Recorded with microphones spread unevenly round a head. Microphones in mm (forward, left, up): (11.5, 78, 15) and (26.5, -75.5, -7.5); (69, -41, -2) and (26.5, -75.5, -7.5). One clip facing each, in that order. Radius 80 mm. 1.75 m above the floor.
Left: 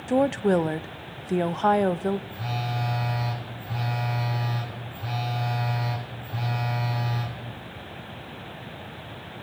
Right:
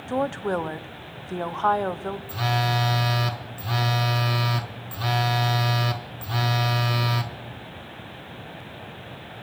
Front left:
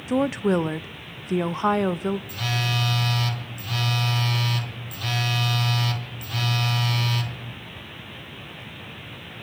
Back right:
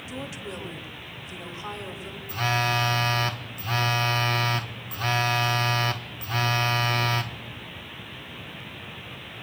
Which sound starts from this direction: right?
A phone buzzing, at 2.3 s.